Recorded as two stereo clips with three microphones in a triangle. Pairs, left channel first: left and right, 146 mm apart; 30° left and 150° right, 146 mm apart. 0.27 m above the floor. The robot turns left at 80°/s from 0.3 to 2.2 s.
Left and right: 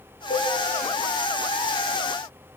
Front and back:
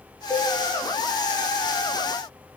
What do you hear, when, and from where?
0.3 s a cowbell: 100° left, 6 m; by 0.5 s 80° left, 6 m